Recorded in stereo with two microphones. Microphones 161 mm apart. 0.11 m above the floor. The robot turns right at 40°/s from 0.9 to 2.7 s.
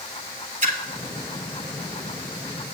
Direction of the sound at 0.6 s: 55° right (ahead or behind).